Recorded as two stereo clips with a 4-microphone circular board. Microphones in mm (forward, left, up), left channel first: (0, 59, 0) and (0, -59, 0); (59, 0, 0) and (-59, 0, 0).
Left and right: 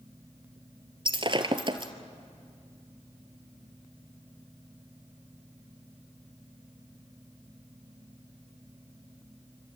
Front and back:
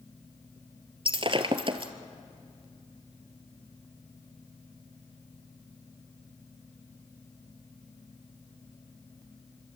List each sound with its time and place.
1.1 s breaking glass: 135° right, 1.5 m